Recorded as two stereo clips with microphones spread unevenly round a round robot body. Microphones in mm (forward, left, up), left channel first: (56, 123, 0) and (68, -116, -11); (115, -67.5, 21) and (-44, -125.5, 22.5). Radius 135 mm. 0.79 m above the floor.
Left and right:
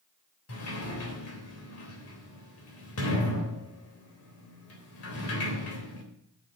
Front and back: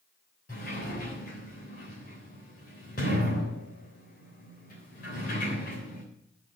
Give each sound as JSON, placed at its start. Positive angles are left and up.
{"t": 0.5, "sound": "a sliding door", "azimuth_deg": 75, "distance_m": 3.5}